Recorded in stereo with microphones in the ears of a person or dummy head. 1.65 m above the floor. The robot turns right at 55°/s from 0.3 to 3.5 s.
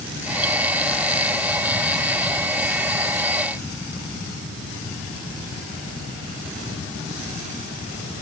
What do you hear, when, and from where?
Only background noise.